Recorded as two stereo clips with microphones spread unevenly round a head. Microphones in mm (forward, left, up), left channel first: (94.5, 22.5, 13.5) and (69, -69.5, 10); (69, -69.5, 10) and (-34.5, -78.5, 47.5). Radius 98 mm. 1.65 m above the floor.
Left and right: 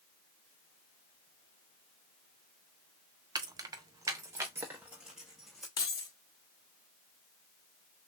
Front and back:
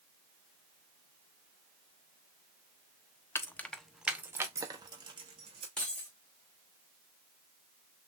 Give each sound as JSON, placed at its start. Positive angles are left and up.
{"t": 3.4, "sound": "keys jangling", "azimuth_deg": -75, "distance_m": 0.7}
{"t": 5.8, "sound": "keys jangling", "azimuth_deg": 110, "distance_m": 0.7}